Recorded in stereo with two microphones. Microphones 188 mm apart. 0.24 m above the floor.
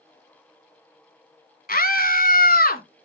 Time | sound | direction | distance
1.7 | a scream | 50° left (ahead or behind) | 1.8 m